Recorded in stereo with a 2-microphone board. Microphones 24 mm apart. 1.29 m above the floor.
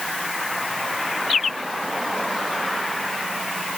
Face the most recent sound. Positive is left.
No sound to turn to.